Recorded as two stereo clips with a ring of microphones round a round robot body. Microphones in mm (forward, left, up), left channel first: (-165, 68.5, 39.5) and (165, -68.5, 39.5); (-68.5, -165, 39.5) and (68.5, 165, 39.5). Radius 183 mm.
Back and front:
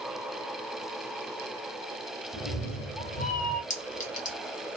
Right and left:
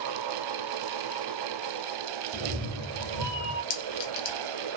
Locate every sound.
2.3 s a cat meowing: 60° left, 1.0 m; by 3.6 s 150° left, 1.3 m
3.7 s a clink: 135° right, 0.8 m